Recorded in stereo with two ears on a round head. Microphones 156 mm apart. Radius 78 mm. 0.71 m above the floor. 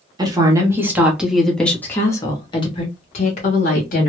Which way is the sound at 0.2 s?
25° right (ahead or behind).